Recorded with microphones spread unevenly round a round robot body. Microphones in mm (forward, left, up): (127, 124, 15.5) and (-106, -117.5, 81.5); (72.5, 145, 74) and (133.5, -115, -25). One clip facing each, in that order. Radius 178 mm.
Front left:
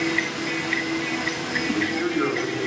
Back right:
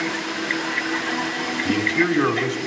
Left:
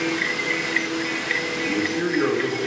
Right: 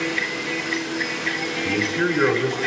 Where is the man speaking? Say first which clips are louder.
Back right 4 dB, right 1 dB; 145° right, 3 m.